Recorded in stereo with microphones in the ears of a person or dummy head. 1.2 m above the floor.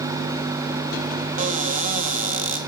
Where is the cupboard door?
45° right (ahead or behind), 1.7 m.